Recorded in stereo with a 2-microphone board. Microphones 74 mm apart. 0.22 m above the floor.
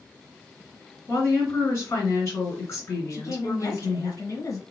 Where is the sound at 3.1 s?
45° left (ahead or behind), 1.5 m.